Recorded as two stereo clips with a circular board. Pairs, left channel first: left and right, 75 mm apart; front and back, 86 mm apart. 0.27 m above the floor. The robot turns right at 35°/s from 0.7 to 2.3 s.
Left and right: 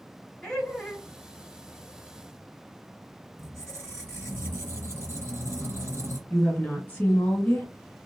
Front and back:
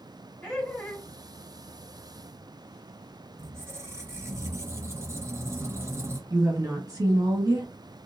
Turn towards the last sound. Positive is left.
turn(degrees=150)